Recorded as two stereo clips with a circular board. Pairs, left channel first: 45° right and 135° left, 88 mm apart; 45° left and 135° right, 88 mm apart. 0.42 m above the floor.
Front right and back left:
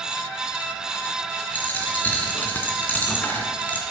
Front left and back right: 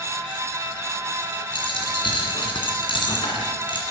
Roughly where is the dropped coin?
Ahead left.